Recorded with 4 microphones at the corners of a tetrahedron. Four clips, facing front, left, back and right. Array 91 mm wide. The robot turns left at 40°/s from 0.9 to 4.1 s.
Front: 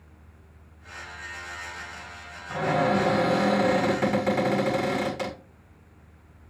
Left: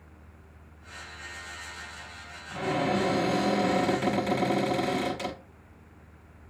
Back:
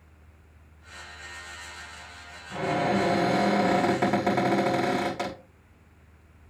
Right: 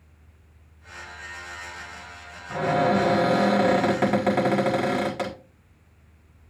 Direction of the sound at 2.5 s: 60° right.